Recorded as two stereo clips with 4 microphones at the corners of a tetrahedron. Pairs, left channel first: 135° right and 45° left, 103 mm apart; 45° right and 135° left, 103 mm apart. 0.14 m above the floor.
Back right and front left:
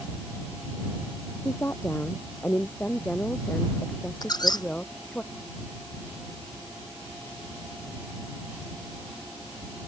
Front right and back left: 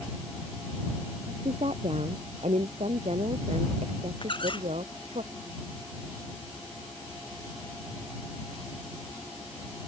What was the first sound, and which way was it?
A woman speaking, 155° left.